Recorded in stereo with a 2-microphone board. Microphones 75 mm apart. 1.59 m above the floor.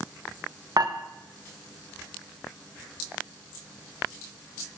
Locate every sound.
0.8 s dishes clattering: 65° right (ahead or behind), 1.2 m